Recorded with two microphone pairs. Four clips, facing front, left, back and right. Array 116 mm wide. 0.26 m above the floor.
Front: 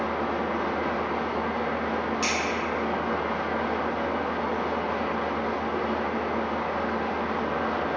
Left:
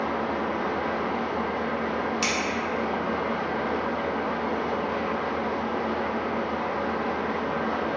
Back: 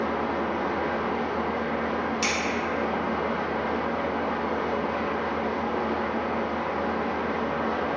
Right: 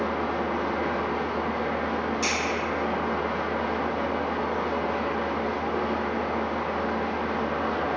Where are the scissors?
90° left, 0.8 m.